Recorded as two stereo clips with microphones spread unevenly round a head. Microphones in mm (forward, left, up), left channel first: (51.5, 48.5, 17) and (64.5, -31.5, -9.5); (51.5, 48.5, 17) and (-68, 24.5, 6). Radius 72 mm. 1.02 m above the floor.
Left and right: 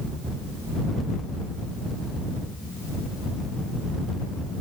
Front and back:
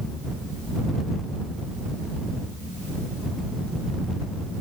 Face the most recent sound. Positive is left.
No sound to turn to.